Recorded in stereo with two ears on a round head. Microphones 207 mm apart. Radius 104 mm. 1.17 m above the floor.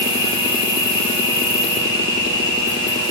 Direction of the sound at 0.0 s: 20° left (ahead or behind).